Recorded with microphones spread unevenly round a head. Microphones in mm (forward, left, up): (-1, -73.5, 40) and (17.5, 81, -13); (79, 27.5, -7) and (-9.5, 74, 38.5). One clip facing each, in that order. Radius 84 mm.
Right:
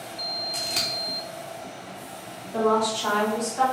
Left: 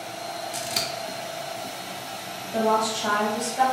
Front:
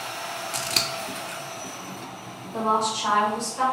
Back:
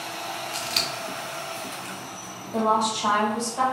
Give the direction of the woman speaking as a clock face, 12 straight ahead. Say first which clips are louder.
Right 1 dB, back 2 dB; 8 o'clock.